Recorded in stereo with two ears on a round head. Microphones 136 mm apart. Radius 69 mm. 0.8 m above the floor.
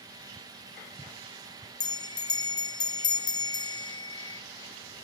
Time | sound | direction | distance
1.8 | a bell | 25° left (ahead or behind) | 0.8 m